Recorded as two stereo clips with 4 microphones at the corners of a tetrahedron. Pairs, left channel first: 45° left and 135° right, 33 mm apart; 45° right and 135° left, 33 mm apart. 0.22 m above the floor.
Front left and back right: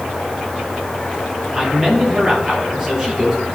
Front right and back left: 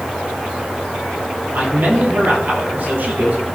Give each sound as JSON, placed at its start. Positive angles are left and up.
{"t": 1.5, "sound": "a man speaking", "azimuth_deg": 150, "distance_m": 4.5}